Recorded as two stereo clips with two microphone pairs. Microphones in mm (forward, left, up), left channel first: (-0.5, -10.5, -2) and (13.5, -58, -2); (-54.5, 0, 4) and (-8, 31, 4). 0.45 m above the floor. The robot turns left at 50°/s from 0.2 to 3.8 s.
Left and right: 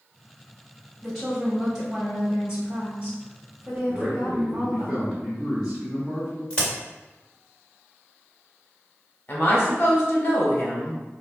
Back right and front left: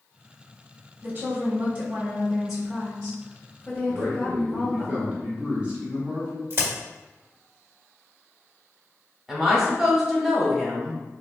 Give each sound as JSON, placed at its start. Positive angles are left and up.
{"t": 1.0, "sound": "a woman speaking", "azimuth_deg": 45, "distance_m": 1.0}
{"t": 3.9, "sound": "a man speaking", "azimuth_deg": 0, "distance_m": 1.1}
{"t": 6.5, "sound": "a crack", "azimuth_deg": 40, "distance_m": 1.7}
{"t": 9.3, "sound": "a woman speaking", "azimuth_deg": 115, "distance_m": 0.9}